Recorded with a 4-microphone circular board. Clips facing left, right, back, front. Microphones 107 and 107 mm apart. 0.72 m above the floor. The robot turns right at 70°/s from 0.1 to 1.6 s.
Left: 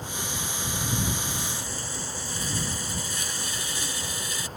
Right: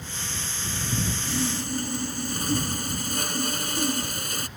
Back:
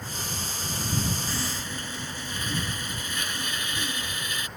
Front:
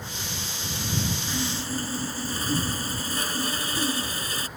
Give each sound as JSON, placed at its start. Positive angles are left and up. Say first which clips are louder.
{"t": 1.3, "sound": "sawing", "louder": "right 6 dB, front 3 dB", "azimuth_deg": -75}